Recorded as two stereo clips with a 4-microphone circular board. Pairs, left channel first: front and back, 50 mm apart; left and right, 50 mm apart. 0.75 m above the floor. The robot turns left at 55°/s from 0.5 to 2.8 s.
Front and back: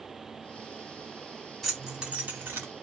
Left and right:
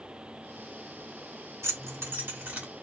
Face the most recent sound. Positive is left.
turn(degrees=-155)